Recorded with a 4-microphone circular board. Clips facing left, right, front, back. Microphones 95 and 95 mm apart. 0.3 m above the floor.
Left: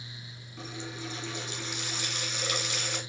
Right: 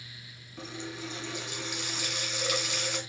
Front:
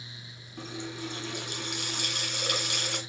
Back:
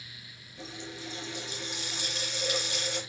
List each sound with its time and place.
0.6 s a running tap: 5° right, 1.9 m